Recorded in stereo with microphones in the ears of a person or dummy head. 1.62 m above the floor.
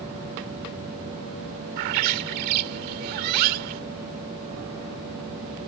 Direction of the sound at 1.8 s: 55° right (ahead or behind).